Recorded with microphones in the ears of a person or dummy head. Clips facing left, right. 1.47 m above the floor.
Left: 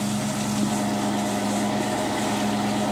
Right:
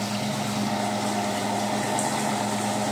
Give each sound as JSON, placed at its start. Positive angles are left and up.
{"t": 0.0, "sound": "an engine running", "side_deg": 80, "distance_m": 6.0}